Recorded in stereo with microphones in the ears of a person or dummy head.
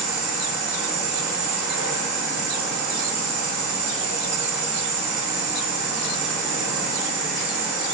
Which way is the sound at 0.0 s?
10° right (ahead or behind).